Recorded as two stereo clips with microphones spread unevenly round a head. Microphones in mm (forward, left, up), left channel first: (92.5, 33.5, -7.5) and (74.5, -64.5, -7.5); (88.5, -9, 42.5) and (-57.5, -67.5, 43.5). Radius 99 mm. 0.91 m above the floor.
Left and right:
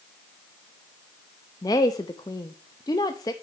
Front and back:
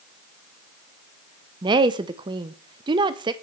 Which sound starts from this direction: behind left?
A woman speaking, at 1.6 s.